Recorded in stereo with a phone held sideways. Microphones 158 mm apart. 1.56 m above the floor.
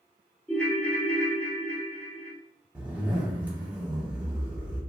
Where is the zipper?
10° right (ahead or behind), 1.3 m.